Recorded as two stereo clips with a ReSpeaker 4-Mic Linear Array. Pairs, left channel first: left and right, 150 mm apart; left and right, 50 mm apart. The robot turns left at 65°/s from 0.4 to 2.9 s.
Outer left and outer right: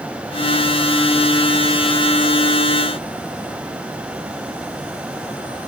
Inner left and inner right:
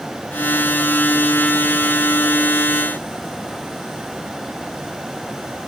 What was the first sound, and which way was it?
Only background noise.